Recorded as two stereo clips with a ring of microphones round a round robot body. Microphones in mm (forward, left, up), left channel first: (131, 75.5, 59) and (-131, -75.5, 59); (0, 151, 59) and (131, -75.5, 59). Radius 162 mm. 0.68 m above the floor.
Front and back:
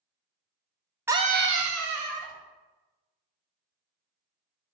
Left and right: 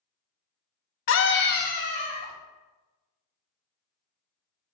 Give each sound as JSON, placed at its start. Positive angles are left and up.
{"t": 1.1, "sound": "a scream", "azimuth_deg": 130, "distance_m": 0.7}